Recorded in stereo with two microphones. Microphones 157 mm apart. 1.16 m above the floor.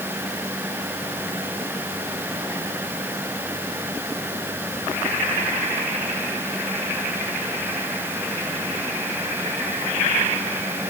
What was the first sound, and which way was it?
Only background noise.